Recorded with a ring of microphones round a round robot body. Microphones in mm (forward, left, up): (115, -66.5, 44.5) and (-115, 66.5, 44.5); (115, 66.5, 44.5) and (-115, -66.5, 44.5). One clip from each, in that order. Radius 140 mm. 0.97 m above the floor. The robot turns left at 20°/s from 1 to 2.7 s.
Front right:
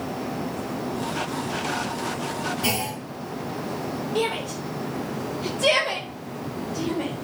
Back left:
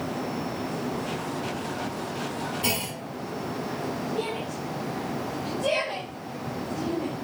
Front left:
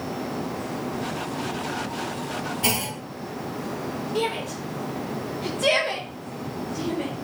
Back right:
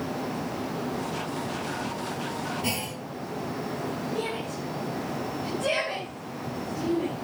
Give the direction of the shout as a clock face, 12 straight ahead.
12 o'clock.